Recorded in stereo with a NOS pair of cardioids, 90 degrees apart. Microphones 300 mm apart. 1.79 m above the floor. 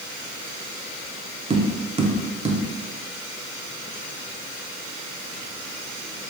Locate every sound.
1.5 s tapping: 20° right, 0.6 m